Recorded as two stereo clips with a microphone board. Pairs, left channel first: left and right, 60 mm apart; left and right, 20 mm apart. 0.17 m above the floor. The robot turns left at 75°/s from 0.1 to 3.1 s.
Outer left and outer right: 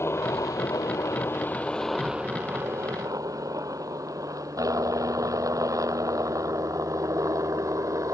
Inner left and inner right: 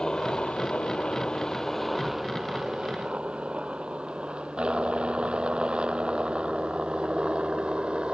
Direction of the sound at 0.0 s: 45° left (ahead or behind).